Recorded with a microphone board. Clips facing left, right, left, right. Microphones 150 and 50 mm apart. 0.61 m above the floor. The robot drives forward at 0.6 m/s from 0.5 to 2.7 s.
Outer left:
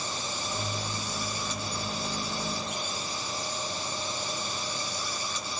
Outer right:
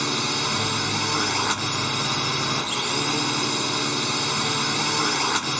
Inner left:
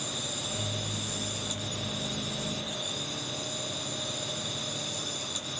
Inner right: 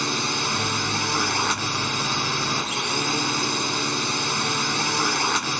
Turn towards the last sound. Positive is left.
turn(degrees=-80)